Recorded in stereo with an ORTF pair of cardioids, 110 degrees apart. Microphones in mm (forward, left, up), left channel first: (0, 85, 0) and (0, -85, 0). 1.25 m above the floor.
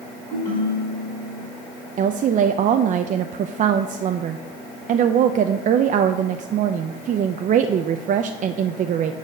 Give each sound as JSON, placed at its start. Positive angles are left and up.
{"t": 0.3, "sound": "a ringtone", "azimuth_deg": 20, "distance_m": 4.0}
{"t": 2.0, "sound": "a woman speaking", "azimuth_deg": -50, "distance_m": 0.5}